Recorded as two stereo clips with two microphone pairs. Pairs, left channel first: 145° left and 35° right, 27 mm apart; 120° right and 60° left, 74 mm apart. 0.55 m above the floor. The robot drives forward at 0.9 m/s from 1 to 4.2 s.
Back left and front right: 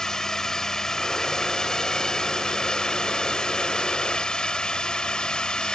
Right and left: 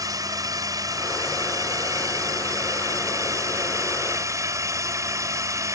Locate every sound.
0.0 s a drone: 85° left; by 5.8 s 95° left